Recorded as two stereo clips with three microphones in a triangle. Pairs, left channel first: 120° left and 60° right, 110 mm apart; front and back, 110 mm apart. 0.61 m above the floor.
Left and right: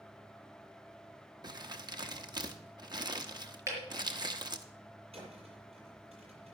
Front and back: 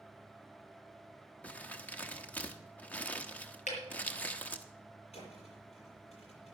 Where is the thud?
25° right, 7.5 m.